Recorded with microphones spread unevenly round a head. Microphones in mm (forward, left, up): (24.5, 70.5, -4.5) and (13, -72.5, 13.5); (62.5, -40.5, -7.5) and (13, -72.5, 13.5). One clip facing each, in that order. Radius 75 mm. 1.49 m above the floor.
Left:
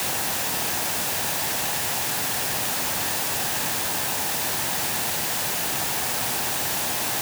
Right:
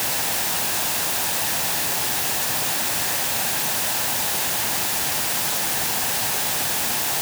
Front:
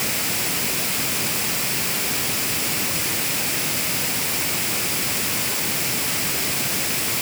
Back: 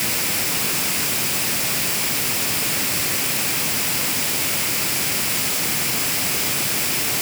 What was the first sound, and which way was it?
Only background noise.